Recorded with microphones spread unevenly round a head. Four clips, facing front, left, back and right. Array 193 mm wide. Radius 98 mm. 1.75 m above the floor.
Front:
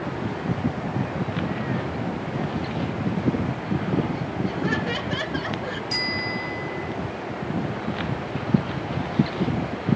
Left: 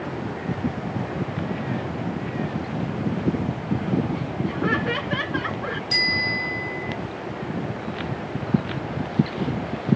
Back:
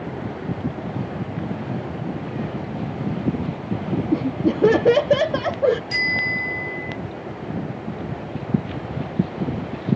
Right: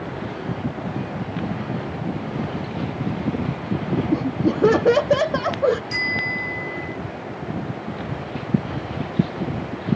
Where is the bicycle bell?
145° left.